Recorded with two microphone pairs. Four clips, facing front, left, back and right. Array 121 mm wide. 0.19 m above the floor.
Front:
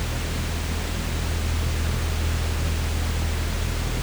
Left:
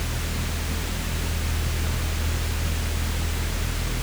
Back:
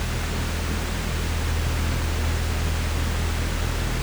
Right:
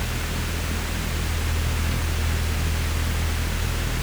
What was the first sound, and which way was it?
Only background noise.